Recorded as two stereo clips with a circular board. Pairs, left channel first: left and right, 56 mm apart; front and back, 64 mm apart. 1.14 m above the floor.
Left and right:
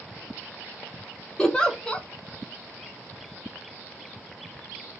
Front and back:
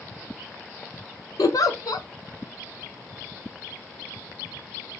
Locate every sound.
1.4 s a giggle: 15° left, 0.6 m